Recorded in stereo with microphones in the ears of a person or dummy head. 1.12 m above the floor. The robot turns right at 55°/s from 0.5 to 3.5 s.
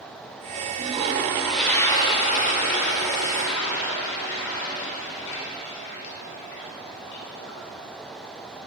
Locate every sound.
0.8 s a toilet flushing: 45° right, 2 m; by 7.6 s 105° left, 2 m